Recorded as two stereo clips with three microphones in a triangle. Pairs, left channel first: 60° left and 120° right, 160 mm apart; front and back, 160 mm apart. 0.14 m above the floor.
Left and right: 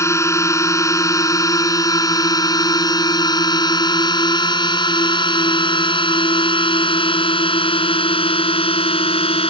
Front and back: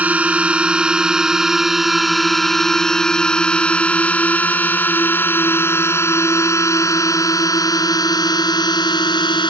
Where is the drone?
110° left; by 9.5 s 40° left.